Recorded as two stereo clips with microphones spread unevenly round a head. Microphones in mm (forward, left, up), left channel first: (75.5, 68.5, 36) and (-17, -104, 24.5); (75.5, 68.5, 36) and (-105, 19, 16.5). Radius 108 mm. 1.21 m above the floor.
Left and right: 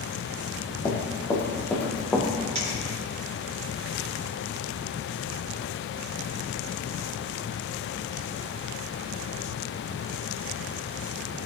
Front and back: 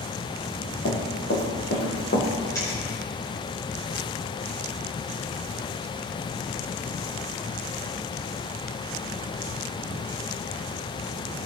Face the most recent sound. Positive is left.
turn(degrees=-60)